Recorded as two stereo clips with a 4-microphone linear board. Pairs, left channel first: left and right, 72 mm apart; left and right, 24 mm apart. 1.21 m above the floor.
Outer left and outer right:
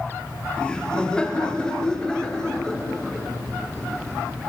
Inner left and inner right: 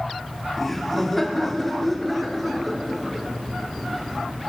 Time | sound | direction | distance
0.6 | laughter | 10° left (ahead or behind) | 3 m